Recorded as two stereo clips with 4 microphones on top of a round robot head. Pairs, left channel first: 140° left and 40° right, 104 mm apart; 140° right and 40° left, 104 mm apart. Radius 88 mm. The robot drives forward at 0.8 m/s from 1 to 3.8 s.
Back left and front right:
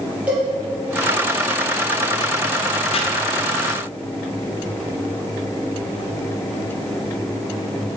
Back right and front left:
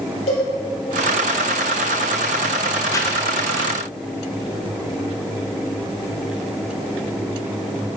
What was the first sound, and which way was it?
A cowbell, 115° right.